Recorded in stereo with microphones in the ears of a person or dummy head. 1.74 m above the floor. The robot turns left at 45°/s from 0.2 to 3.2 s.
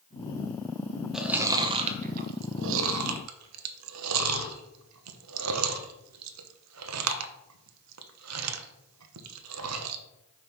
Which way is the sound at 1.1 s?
Centre (ahead or behind).